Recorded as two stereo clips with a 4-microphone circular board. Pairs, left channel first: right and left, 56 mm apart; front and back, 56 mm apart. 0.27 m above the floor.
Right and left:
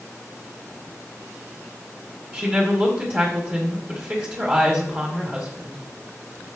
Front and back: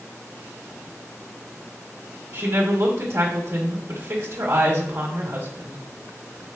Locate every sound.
2.3 s a woman speaking: 140° left, 2 m